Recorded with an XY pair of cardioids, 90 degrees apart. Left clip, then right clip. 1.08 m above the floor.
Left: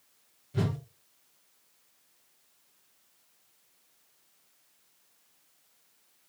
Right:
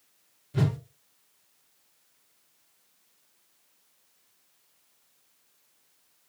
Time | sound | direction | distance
0.5 | a whoosh | 30° right | 0.8 m